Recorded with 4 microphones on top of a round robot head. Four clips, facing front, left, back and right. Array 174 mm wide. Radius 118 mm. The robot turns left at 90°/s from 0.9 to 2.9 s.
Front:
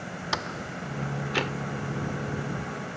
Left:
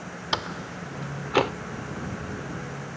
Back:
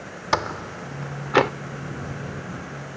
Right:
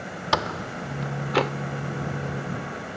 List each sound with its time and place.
0.3 s a door slam: 145° right; by 1.5 s 160° left